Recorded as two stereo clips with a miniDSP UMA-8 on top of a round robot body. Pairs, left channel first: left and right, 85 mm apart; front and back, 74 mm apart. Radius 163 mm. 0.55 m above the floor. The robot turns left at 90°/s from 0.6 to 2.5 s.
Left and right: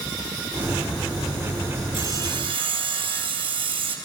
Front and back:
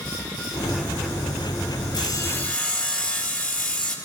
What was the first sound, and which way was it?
Sawing, 30° right.